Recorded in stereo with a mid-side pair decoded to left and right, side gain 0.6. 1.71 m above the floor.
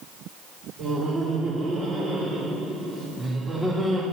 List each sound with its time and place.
0.8 s laughter: 40° right, 4 m; by 4.0 s 15° right, 2.5 m